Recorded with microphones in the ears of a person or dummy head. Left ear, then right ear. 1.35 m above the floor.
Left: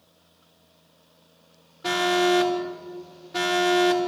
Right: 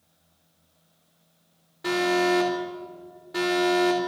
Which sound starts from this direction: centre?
An alarm, at 1.8 s.